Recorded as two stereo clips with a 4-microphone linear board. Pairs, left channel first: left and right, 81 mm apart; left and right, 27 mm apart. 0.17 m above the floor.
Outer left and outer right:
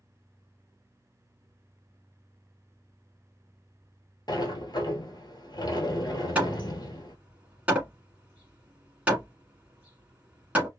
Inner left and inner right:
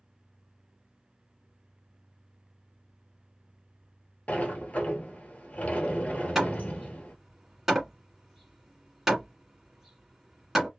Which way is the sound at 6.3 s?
15° right (ahead or behind).